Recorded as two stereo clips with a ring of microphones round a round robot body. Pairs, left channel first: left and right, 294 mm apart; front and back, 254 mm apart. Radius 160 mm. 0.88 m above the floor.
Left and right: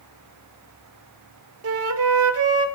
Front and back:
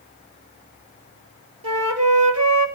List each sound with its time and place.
1.6 s a flute: 135° right, 2.5 m